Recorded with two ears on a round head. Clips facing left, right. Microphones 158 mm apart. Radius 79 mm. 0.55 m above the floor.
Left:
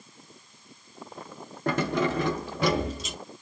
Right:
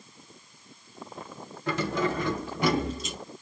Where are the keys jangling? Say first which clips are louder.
Left 2 dB; 40° left (ahead or behind), 0.6 m; by 3.2 s 65° left (ahead or behind), 1.2 m.